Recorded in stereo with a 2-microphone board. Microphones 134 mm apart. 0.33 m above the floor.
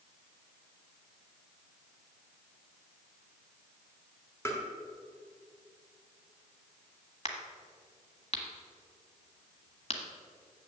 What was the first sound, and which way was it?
Tapping, 20° left (ahead or behind).